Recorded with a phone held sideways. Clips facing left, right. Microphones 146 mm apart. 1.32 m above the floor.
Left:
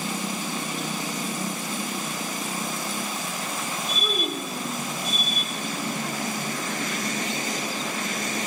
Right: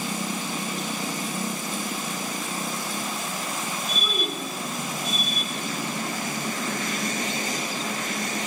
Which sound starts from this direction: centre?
A child speaking, at 4.0 s.